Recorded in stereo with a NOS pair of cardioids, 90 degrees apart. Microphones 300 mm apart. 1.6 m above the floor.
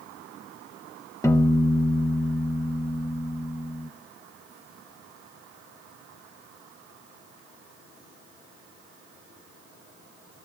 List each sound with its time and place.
1.2 s a piano: 10° left, 0.6 m